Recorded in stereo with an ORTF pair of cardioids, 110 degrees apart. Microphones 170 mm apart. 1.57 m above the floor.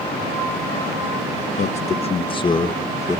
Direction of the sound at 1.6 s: 45° left.